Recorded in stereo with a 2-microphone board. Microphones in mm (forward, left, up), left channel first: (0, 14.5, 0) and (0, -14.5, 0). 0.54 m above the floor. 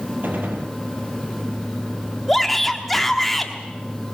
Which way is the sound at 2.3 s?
5° left (ahead or behind).